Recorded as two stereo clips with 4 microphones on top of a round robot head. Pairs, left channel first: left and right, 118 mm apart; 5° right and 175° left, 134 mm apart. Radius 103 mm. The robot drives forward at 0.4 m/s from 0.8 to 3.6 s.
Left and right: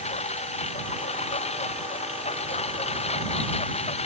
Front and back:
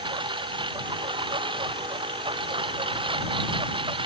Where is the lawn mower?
120° left.